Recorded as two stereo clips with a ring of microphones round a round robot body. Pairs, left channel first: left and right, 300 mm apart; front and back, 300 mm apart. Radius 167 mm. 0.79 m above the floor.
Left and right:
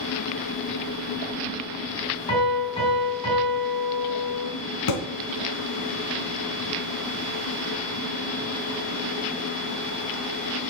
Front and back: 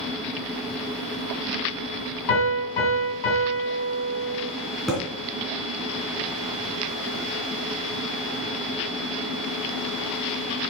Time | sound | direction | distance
2.3 | a piano | 15° left | 4 m
4.9 | a thud | 90° left | 3 m